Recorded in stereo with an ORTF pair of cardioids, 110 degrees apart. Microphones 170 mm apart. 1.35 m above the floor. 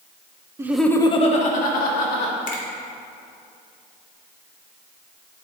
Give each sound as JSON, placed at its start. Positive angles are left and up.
{"t": 0.6, "sound": "laughter", "azimuth_deg": -20, "distance_m": 0.7}
{"t": 2.5, "sound": "a finger snap", "azimuth_deg": 50, "distance_m": 1.9}